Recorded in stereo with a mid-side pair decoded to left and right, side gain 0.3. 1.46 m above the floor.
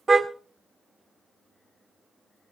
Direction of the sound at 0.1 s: 40° right.